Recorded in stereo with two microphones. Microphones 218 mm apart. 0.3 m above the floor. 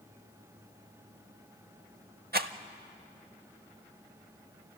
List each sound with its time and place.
2.3 s a rattle: 45° right (ahead or behind), 0.7 m